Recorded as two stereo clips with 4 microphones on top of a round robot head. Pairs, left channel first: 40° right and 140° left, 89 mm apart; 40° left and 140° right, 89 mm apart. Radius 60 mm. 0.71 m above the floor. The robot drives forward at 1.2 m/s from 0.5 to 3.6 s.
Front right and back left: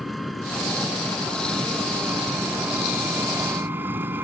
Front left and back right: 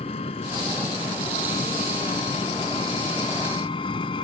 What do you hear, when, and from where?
0.0 s an engine running: 50° left; by 4.2 s 70° left